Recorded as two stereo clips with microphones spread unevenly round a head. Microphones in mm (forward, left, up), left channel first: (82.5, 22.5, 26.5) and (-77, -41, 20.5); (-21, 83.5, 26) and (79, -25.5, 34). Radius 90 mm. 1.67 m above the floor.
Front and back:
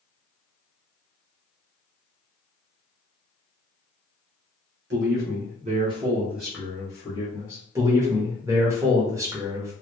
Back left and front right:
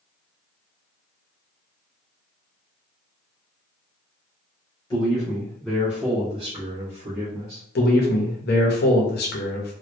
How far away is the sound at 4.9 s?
About 0.9 m.